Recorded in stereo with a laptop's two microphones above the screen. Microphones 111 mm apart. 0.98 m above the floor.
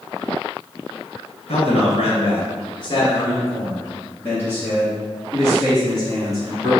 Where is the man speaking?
70° left (ahead or behind), 1.2 m; by 6.7 s centre (ahead or behind), 3 m.